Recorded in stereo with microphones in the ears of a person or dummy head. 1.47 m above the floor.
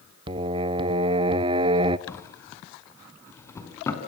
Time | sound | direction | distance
0.3 | singing | 20° right (ahead or behind) | 0.8 m
2.1 | a drawer | 10° left (ahead or behind) | 3 m